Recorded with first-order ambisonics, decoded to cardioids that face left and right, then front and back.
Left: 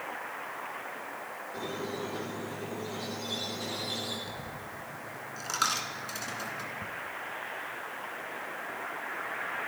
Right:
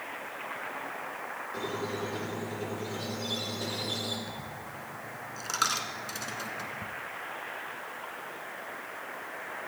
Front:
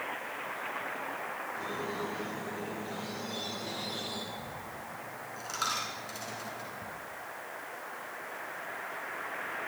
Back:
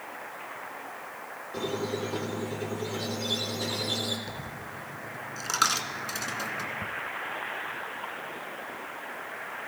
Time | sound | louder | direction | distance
1.5 | a squeak | right 1 dB, back 8 dB | 165° right | 3.5 m
4.3 | a dropped coin | even, back 2 dB | 175° right | 1.7 m